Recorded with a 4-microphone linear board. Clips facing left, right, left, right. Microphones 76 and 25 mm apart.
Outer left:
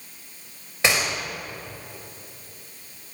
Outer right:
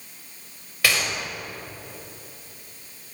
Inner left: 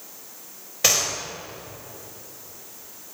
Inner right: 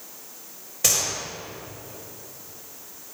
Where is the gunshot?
25° left (ahead or behind), 4.5 m.